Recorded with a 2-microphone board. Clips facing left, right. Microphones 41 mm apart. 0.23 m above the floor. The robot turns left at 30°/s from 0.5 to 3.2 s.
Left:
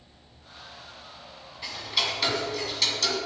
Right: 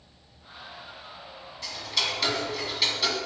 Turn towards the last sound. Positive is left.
turn(degrees=-25)